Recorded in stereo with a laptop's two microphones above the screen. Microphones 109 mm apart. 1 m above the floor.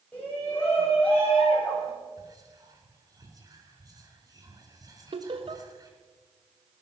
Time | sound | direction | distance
0.1 | a shout | 15° left (ahead or behind) | 4.5 m
2.2 | whispering | 30° right (ahead or behind) | 4 m
5.1 | laughter | 55° right (ahead or behind) | 1.2 m